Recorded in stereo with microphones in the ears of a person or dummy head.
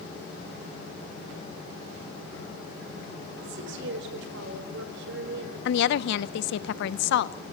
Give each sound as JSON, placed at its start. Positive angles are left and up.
{"t": 3.4, "sound": "a woman speaking", "side_deg": -75, "distance_m": 5.0}
{"t": 5.7, "sound": "a woman speaking", "side_deg": 70, "distance_m": 0.8}